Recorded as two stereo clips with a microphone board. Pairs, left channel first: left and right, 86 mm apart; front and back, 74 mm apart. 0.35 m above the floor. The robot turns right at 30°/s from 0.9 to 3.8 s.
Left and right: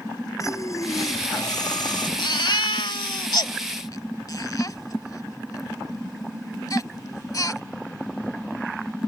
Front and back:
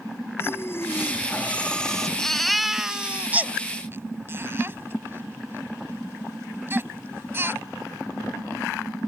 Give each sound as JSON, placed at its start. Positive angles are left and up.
{"t": 0.4, "sound": "breathing", "azimuth_deg": 50}
{"t": 2.2, "sound": "a baby crying", "azimuth_deg": 80}